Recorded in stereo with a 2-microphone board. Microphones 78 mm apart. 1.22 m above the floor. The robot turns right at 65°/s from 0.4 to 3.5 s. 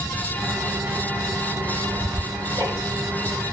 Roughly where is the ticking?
Right.